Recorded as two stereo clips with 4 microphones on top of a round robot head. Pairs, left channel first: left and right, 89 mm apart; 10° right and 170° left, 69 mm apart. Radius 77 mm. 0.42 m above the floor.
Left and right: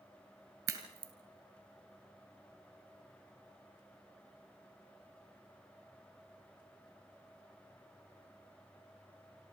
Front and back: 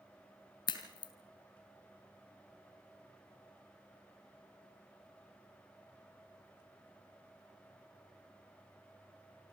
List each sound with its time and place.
0.7 s a crack: 35° right, 2.5 m